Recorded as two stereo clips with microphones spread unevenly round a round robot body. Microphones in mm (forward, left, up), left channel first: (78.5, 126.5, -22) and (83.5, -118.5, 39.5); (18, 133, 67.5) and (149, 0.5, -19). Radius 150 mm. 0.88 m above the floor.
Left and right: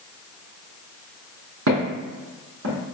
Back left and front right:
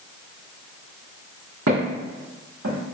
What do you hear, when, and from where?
1.7 s footsteps: 100° right, 1.9 m; by 2.9 s 65° right, 1.8 m